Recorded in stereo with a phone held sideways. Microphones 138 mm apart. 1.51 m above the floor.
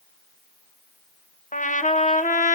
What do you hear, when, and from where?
1.5 s a trumpet: 65° left (ahead or behind), 1.3 m